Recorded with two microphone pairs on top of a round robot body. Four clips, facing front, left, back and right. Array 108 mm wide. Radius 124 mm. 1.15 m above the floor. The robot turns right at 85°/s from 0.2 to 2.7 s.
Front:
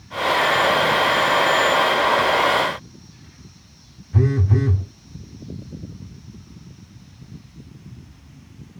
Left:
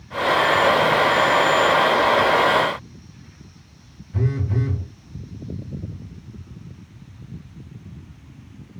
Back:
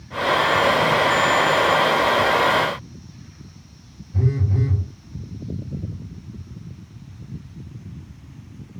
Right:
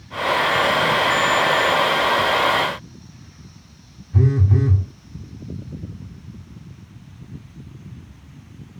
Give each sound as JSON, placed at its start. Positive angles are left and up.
{"t": 4.1, "sound": "a phone buzzing", "azimuth_deg": -15, "distance_m": 1.1}